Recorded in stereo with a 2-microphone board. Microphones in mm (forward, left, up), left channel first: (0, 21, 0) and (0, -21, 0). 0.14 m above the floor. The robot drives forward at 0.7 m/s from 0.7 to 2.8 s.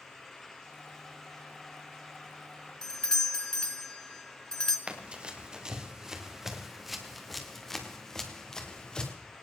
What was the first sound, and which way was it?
A doorbell, 20° left (ahead or behind).